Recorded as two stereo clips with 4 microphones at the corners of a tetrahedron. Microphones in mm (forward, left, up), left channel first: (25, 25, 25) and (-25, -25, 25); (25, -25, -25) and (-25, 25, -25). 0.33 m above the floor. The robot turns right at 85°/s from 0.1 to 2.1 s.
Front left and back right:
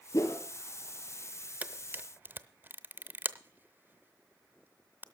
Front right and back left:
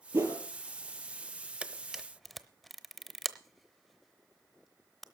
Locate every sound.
0.1 s a whoosh: 85° left, 2 m; by 0.4 s 110° left, 2 m
1.6 s a camera shutter: 175° right, 0.7 m; by 5.0 s 135° right, 0.7 m